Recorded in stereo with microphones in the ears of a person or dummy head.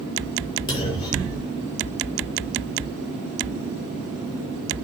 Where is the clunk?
20° left (ahead or behind), 3.5 m.